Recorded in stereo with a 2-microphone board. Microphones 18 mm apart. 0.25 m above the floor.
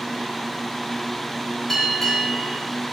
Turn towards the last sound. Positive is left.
turn(degrees=15)  # may be behind; listen again after turning